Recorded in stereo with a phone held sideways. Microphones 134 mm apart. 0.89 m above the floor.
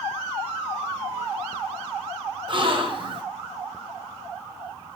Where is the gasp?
40° right (ahead or behind), 0.7 m.